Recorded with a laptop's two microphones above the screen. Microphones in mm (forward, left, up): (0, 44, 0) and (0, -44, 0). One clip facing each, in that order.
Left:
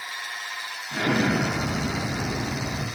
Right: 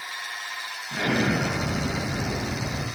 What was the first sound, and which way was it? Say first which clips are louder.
An explosion: left 1 dB; centre (ahead or behind).